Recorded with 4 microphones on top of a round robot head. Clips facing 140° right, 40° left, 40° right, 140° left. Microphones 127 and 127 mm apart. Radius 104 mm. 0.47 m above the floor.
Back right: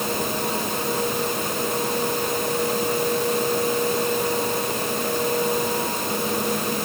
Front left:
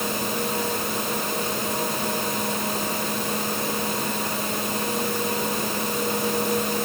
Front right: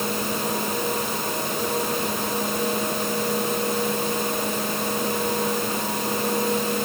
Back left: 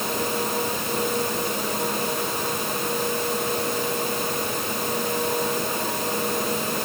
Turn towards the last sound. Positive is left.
No sound to turn to.